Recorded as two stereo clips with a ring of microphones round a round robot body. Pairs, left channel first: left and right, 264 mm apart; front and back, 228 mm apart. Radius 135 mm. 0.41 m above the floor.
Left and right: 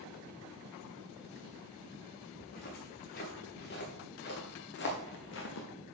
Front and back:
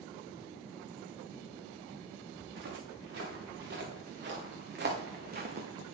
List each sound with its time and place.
2.4 s footsteps: 145° left, 4 m; by 5.7 s 130° left, 2.5 m